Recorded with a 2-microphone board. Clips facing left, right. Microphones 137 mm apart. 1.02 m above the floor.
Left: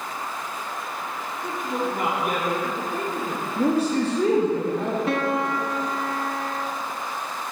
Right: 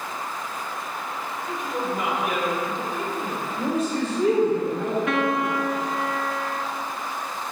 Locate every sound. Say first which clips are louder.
1.4 s a woman speaking: left 2 dB; 50° left (ahead or behind), 3 m
3.6 s a man speaking: left 4 dB; 70° left (ahead or behind), 2.0 m
5.1 s a piano: even; 35° left (ahead or behind), 1.2 m